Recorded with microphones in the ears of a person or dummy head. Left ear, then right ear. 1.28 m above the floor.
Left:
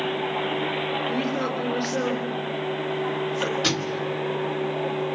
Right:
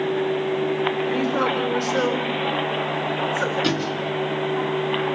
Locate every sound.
1.1 s a woman speaking: 30° right (ahead or behind), 5 m
3.6 s a thud: 15° left (ahead or behind), 2.5 m